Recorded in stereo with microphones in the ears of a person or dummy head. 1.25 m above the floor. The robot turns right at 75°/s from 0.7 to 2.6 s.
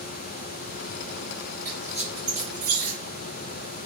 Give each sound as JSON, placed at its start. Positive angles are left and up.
{"t": 1.6, "sound": "a squeak", "side_deg": 10, "distance_m": 1.2}